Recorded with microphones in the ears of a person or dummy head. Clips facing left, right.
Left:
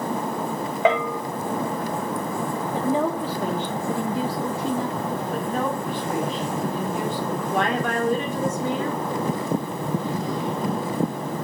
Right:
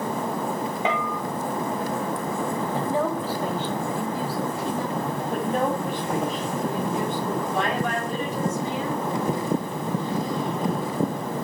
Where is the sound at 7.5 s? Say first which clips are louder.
Left 2 dB; 50° left (ahead or behind), 3.5 m.